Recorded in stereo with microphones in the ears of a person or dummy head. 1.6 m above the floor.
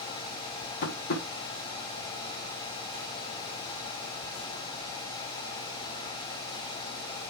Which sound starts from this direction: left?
Tapping, at 0.8 s.